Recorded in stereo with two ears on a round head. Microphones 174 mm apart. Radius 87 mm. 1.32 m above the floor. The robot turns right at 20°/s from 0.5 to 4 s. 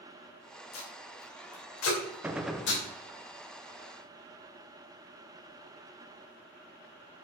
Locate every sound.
0.7 s tape being pulled: 70° left (ahead or behind), 2.5 m; by 2.8 s 60° left (ahead or behind), 2.5 m
2.2 s a gunshot: 5° right (ahead or behind), 0.7 m; by 2.7 s 5° left (ahead or behind), 0.7 m